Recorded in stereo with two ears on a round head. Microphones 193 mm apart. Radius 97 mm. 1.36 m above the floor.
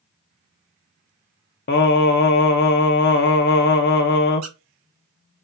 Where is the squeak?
75° right (ahead or behind), 1.5 m.